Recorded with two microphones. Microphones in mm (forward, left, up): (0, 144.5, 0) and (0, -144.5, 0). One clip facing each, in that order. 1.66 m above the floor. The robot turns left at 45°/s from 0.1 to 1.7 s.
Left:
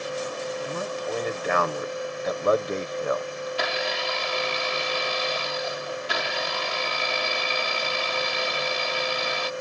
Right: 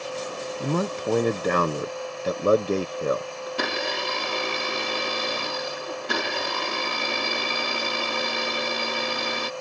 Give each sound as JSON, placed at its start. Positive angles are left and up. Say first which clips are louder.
{"t": 0.6, "sound": "a man speaking", "louder": "right 4 dB", "azimuth_deg": -95}
{"t": 3.5, "sound": "a blender", "louder": "right 2 dB", "side_deg": -55}